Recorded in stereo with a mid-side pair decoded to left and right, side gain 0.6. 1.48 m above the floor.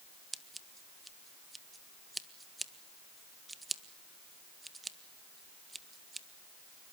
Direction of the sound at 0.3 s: 10° right.